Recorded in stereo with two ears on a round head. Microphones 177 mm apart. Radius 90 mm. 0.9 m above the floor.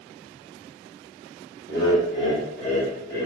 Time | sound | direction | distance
1.7 | laughter | 15° left (ahead or behind) | 1.0 m